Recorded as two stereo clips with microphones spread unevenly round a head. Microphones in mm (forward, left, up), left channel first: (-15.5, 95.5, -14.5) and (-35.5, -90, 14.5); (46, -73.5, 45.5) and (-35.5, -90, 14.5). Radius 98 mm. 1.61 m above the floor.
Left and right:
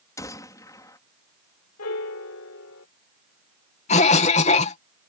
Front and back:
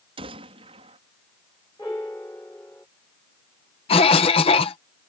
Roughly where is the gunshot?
Behind.